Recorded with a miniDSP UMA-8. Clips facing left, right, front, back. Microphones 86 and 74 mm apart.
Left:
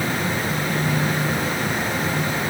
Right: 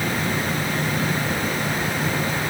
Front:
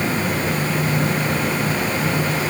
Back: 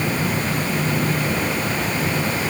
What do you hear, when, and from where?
Only background noise.